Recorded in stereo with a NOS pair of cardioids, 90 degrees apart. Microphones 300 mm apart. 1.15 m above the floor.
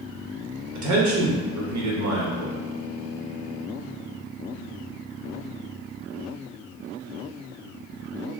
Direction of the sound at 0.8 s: 65° right.